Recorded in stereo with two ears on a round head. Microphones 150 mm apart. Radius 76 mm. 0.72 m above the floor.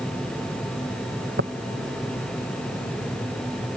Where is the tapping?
70° right (ahead or behind).